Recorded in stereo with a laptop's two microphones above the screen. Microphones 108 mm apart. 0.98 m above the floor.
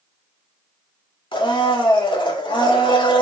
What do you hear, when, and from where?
1.3 s a blender: 50° left (ahead or behind), 1.6 m